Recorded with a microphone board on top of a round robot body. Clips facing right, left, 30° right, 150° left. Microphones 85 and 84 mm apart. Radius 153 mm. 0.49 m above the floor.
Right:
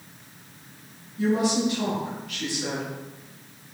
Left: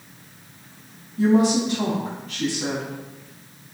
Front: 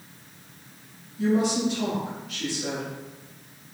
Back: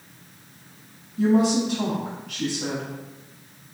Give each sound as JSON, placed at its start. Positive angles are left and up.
{"t": 1.2, "sound": "a woman speaking", "azimuth_deg": 145, "distance_m": 4.0}